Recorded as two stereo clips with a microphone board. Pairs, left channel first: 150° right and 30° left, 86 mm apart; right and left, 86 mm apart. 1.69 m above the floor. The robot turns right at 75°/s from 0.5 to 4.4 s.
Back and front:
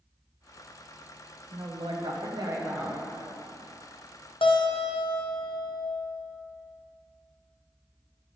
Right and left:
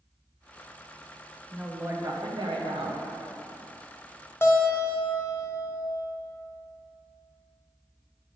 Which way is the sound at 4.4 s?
150° right.